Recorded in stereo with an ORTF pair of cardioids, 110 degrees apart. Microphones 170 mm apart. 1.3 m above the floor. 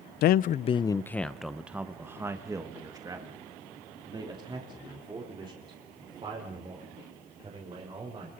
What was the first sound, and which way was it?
A man speaking, 70° left.